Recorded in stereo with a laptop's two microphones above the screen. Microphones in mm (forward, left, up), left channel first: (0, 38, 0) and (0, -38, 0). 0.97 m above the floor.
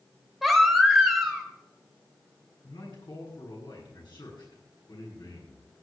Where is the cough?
I don't hear a cough.